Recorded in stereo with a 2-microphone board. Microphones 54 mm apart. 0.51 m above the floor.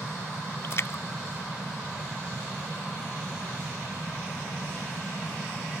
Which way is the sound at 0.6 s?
55° left (ahead or behind).